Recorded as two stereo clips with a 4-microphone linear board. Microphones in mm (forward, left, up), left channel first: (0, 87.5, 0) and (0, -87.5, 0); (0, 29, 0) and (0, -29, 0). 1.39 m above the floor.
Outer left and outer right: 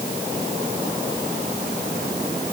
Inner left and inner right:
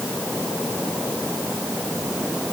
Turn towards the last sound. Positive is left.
No sound to turn to.